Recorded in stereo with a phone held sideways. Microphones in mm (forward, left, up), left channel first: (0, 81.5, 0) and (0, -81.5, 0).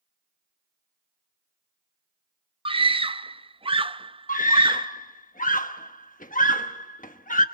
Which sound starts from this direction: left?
A scream, at 4.3 s.